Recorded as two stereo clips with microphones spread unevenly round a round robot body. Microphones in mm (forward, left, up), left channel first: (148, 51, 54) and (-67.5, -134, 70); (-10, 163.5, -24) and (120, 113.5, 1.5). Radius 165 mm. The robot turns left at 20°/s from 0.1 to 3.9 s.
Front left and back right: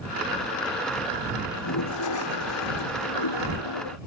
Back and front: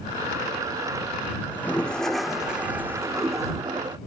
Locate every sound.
1.5 s a toilet flushing: 85° left; by 4.0 s 35° left